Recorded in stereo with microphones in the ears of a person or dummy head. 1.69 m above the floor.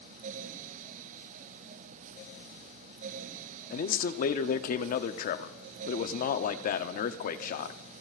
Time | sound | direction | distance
3.7 | a man speaking | 45° left (ahead or behind) | 0.7 m